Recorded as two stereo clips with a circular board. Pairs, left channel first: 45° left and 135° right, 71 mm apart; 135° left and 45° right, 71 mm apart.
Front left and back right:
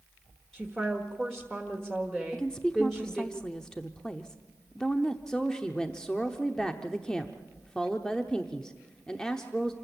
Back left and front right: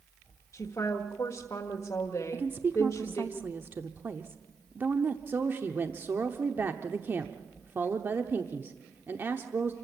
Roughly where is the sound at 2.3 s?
Ahead right.